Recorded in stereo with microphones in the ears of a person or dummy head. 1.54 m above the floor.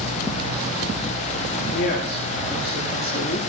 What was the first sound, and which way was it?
A woman speaking, 60° left (ahead or behind).